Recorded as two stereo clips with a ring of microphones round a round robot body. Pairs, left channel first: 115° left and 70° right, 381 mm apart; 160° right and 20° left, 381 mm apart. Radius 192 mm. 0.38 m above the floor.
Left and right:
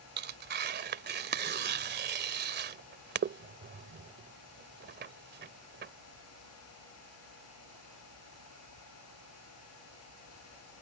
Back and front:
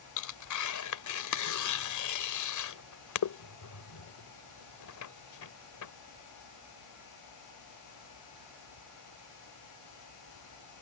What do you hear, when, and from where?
0.2 s tearing paper: 125° right